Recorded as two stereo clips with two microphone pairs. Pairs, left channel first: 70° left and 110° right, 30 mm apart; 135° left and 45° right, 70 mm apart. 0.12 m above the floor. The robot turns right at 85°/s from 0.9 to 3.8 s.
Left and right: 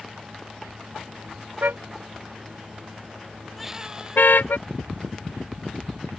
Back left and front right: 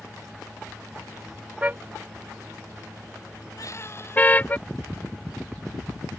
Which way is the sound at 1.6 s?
115° right.